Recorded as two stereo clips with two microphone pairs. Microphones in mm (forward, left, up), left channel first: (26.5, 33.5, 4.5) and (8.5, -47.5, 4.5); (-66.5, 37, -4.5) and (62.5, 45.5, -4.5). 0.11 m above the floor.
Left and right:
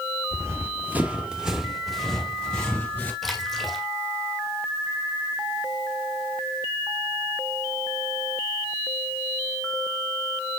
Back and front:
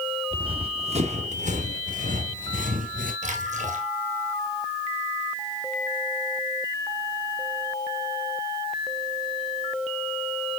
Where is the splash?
10° right, 1.5 m.